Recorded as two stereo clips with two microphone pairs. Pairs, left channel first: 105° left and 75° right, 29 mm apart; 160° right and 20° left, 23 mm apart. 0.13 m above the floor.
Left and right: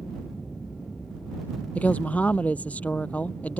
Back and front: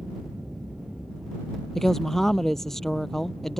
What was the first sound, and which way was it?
An aircraft, 100° left.